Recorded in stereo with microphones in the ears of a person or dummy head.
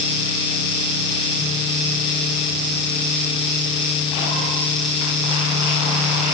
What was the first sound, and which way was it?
Only background noise.